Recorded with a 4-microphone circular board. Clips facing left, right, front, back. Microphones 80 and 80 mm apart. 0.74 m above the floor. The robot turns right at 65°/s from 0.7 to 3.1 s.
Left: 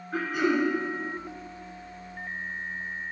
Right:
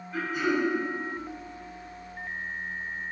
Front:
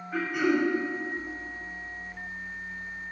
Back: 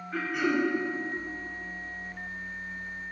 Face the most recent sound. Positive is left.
turn(degrees=-120)